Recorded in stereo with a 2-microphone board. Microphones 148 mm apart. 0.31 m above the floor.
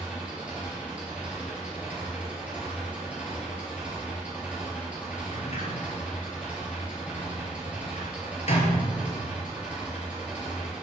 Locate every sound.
0.0 s an engine running: 10° right (ahead or behind), 3.5 m
5.3 s a sliding door: 45° left (ahead or behind), 2 m